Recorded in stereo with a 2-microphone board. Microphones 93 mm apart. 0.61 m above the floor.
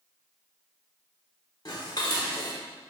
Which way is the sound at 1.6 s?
45° left (ahead or behind).